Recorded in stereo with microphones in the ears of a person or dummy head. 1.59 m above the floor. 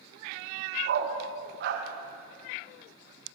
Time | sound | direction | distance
0.8 | a dog barking | 60° right (ahead or behind) | 5 m